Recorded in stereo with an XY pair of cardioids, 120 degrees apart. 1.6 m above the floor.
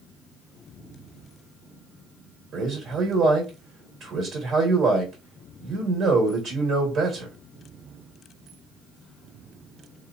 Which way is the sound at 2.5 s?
55° right.